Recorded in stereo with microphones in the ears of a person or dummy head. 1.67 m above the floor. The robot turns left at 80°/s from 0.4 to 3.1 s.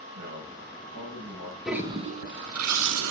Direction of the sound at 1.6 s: Straight ahead.